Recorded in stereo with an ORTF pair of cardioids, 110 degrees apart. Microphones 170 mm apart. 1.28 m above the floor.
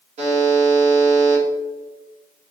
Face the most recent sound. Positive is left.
turn(degrees=-45)